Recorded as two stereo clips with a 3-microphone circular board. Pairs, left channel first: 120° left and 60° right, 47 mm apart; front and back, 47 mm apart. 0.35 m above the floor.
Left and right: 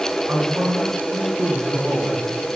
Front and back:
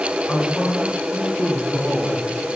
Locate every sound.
0.3 s a man speaking: 85° right, 4 m